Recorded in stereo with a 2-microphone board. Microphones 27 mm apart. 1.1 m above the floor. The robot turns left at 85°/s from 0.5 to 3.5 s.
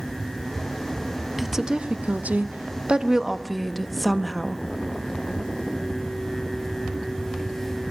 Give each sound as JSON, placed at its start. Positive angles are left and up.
{"t": 1.4, "sound": "a woman speaking", "azimuth_deg": 0, "distance_m": 1.0}